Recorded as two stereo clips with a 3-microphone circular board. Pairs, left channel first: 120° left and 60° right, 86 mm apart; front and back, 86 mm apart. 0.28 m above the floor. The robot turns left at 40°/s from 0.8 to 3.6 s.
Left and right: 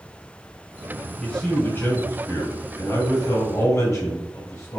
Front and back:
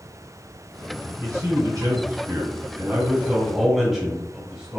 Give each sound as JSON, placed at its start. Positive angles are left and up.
{"t": 1.2, "sound": "a man speaking", "azimuth_deg": -165, "distance_m": 1.6}